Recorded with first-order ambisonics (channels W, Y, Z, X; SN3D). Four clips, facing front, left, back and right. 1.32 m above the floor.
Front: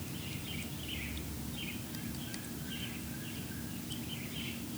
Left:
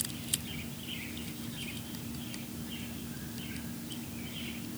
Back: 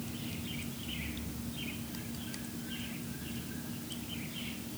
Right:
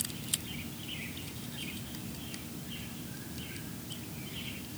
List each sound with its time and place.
Only background noise.